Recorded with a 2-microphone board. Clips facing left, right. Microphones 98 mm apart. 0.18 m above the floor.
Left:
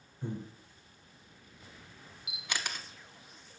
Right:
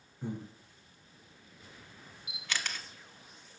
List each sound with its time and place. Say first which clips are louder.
0.2 s breathing: even; 15° right (ahead or behind), 1.6 m
2.3 s a camera shutter: even; 15° left (ahead or behind), 0.8 m